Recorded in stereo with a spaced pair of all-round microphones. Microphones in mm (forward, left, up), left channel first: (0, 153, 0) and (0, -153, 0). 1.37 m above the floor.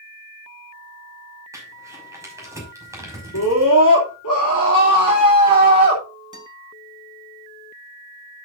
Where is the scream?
75° left (ahead or behind), 3 m.